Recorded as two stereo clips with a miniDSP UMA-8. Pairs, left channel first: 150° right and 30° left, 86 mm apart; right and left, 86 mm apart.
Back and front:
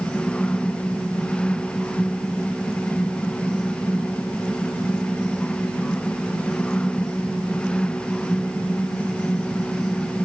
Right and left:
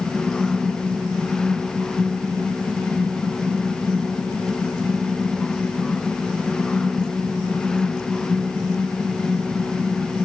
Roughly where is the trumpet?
I don't hear a trumpet.